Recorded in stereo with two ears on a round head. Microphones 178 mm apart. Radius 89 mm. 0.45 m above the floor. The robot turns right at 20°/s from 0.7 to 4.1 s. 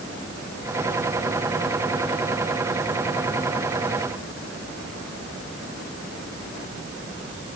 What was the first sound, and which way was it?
Only background noise.